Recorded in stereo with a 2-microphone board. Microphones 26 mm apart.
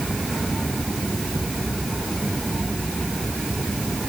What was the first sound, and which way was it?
Only background noise.